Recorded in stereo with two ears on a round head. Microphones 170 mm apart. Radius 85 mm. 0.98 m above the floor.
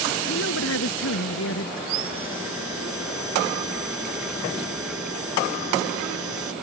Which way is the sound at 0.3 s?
75° left (ahead or behind).